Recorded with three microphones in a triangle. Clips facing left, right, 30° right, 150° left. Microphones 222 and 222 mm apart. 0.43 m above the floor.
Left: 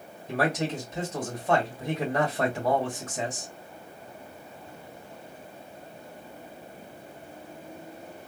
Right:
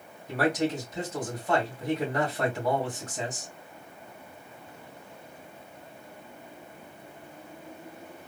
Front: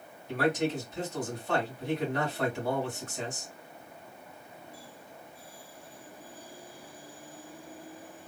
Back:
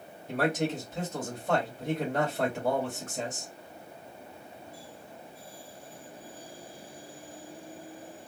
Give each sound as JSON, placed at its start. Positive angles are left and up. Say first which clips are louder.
{"t": 0.3, "sound": "a man speaking", "louder": "right 1 dB, even", "azimuth_deg": 150, "distance_m": 1.9}